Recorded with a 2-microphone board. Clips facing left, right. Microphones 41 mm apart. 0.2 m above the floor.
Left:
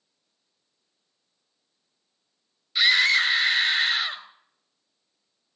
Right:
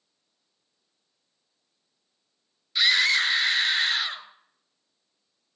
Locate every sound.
2.8 s a scream: 5° left (ahead or behind), 2.5 m